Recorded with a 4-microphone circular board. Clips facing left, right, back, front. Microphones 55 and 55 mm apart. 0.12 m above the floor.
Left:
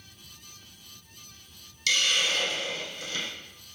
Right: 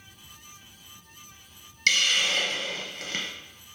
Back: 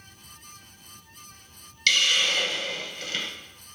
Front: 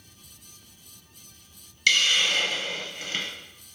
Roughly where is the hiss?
Right.